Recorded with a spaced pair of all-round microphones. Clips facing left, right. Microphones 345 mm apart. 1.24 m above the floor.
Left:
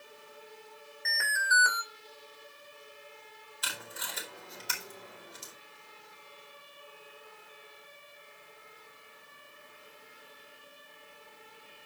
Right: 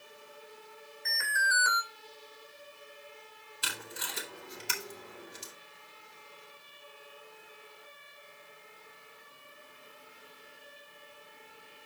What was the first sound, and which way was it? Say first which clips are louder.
An alarm: left 1 dB; 75° left (ahead or behind).